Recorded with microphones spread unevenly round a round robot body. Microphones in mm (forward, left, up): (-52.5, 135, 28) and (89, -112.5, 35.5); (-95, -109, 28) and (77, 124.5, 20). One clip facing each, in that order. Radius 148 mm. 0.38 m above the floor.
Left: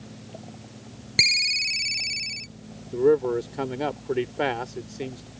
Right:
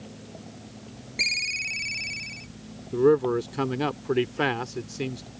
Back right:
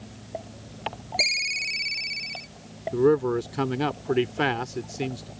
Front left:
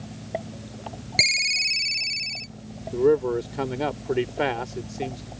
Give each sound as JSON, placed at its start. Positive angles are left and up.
{"t": 1.2, "sound": "a ringtone", "azimuth_deg": 100}
{"t": 2.9, "sound": "a man speaking", "azimuth_deg": -100}